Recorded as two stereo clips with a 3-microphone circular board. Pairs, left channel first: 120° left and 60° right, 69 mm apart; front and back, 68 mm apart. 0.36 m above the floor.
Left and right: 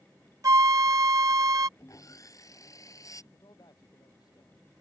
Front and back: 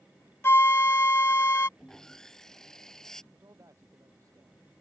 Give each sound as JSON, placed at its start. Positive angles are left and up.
{"t": 0.4, "sound": "a flute", "azimuth_deg": -45}
{"t": 1.8, "sound": "sawing", "azimuth_deg": 80}
{"t": 3.3, "sound": "a man speaking", "azimuth_deg": 140}